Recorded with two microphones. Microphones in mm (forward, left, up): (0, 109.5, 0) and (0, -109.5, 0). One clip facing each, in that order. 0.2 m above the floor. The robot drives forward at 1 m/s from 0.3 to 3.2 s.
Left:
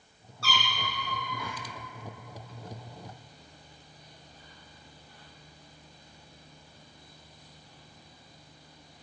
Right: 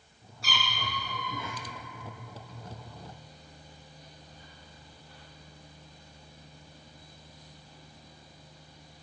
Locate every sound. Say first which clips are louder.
0.4 s a cat meowing: left 2 dB; 15° right (ahead or behind), 4 m; by 1.6 s 20° right (ahead or behind), 3 m